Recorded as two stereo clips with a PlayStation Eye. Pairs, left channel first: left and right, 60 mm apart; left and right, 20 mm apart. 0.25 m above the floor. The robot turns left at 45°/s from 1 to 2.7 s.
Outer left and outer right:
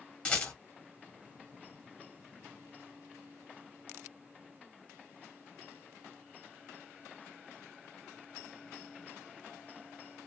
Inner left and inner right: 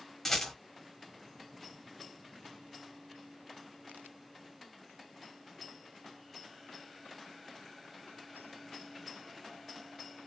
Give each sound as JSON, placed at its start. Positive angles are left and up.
{"t": 0.2, "sound": "a rattle", "side_deg": 20, "distance_m": 1.2}